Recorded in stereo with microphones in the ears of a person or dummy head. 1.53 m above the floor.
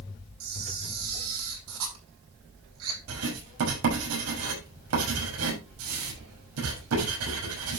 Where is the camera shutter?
80° right, 7 m.